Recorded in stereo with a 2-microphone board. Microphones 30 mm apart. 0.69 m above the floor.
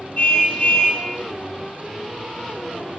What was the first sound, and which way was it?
A car horn, 45° left (ahead or behind).